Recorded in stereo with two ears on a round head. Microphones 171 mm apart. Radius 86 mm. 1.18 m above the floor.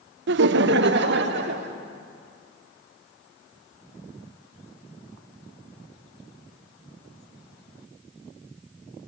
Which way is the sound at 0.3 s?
65° right (ahead or behind).